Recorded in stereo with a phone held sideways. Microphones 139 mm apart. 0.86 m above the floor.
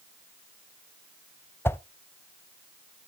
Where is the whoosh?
15° left (ahead or behind), 0.5 m.